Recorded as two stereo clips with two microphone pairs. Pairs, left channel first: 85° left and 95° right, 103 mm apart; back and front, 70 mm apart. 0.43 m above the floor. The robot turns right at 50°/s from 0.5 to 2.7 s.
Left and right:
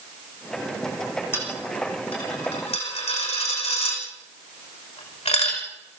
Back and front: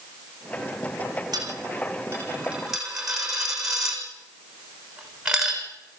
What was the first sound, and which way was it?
A dropped coin, 15° left.